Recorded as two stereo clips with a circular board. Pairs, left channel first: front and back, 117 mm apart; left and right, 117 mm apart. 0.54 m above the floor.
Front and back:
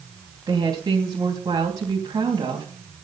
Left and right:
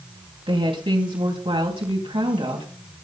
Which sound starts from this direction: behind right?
A woman speaking, at 0.5 s.